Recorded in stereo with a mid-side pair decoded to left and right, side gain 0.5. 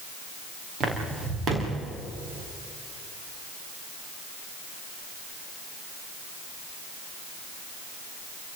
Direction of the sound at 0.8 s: 60° right.